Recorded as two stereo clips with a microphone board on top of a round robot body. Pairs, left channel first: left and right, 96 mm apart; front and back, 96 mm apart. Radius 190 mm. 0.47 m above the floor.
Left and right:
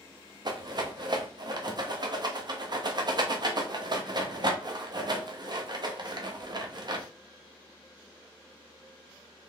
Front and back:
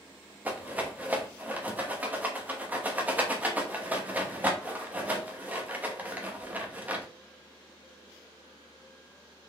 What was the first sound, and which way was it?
A rattle, 110° right.